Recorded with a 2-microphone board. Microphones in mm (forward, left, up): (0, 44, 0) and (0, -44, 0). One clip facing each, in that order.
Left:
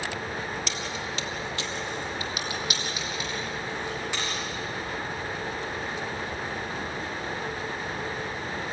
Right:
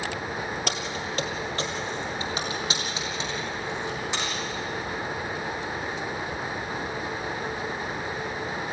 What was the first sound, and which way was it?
Keys jangling, 55° right (ahead or behind).